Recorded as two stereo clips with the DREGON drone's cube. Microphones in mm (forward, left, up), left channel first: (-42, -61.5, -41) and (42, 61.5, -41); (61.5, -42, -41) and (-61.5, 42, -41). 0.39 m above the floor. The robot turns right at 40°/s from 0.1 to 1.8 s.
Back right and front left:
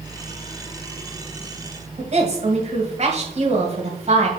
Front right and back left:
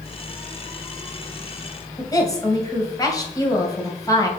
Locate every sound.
2.0 s a woman speaking: 25° left, 1.8 m